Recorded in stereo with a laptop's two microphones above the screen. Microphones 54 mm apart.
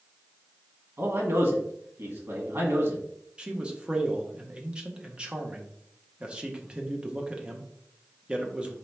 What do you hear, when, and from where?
1.0 s a man speaking: 50° right (ahead or behind), 1.6 m
3.4 s a man speaking: 20° right (ahead or behind), 0.7 m